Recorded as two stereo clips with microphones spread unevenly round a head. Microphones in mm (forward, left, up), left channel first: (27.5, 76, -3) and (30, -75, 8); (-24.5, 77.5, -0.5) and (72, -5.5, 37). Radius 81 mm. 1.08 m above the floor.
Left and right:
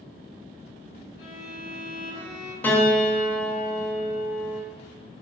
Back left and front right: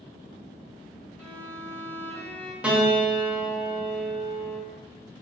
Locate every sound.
1.2 s a violin: 65° left, 1.6 m
2.6 s a piano: 15° left, 0.5 m